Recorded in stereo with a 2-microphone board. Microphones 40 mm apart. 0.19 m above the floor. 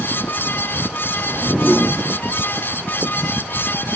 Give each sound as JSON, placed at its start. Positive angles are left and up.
{"t": 1.3, "sound": "a whoosh", "side_deg": -15, "distance_m": 5.5}